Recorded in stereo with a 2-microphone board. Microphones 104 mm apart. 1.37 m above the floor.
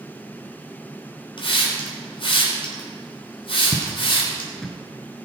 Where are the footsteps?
15° right (ahead or behind), 1.3 m; by 4.7 s 10° left (ahead or behind), 1.3 m.